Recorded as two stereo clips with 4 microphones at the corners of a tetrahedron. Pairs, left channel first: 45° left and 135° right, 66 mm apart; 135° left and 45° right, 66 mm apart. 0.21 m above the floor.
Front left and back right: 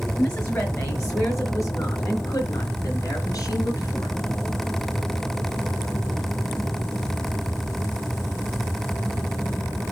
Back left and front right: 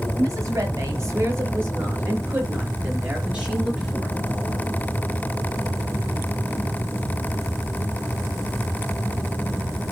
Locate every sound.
0.2 s a woman speaking: 5° right, 4.5 m; by 4.1 s 35° left, 3.5 m